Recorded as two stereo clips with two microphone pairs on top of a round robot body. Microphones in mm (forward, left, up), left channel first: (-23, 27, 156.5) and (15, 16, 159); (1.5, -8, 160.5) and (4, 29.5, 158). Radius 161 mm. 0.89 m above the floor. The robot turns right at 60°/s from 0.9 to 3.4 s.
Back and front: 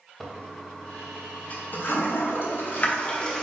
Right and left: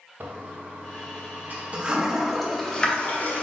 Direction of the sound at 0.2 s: 85° left.